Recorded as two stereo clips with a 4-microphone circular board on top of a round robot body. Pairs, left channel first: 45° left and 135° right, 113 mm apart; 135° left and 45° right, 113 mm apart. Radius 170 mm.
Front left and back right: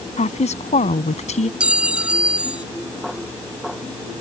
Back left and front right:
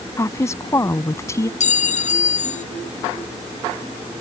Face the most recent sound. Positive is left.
turn(degrees=145)